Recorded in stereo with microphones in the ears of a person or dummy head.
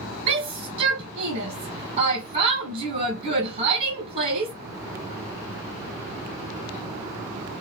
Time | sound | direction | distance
0.3 | a shout | 50° right (ahead or behind) | 1.7 m